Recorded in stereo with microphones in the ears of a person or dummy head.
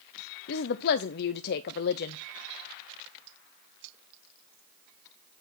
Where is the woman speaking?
55° left (ahead or behind), 0.5 m.